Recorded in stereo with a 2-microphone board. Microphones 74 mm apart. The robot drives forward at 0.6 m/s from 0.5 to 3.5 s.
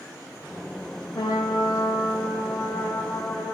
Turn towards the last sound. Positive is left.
turn(degrees=40)  # may be behind; listen again after turning